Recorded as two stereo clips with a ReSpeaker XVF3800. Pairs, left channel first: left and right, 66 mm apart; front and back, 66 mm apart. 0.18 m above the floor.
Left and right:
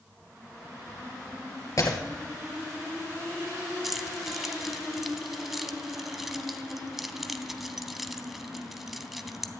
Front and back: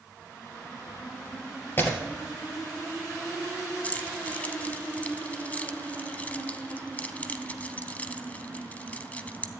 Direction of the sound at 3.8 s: 10° right.